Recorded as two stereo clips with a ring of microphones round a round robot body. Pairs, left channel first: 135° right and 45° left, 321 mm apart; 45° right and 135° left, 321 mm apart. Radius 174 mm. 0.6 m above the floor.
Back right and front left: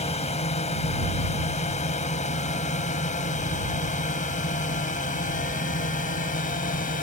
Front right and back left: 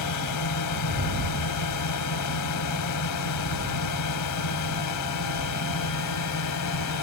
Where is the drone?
65° right; by 7.0 s 70° right.